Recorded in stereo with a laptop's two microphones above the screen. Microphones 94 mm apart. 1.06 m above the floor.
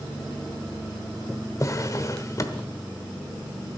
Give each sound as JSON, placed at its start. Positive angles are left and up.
{"t": 1.6, "sound": "a drawer", "side_deg": 35, "distance_m": 0.9}